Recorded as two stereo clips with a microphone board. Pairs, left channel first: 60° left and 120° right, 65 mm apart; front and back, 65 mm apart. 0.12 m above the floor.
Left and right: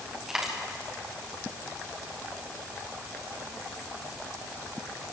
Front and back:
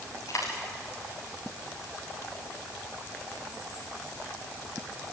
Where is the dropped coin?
35° right, 5.5 m.